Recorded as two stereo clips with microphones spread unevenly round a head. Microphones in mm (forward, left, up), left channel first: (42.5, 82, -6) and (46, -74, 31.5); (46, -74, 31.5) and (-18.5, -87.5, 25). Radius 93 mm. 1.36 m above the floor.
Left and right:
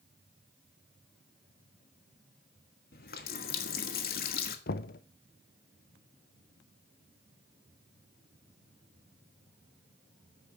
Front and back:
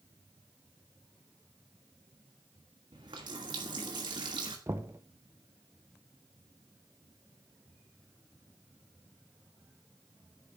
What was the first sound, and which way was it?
A running tap, 140° left.